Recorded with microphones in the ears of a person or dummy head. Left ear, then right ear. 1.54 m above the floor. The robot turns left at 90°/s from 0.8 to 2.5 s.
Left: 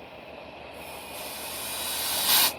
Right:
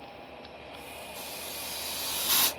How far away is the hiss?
About 2 m.